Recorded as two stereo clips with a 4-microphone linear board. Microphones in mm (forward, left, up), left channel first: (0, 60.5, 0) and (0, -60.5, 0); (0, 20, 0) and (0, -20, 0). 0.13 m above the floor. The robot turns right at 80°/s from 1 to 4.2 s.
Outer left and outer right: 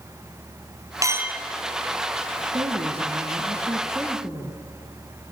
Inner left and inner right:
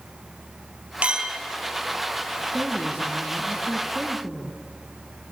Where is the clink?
35° right, 1.6 m; by 1.4 s straight ahead, 1.6 m.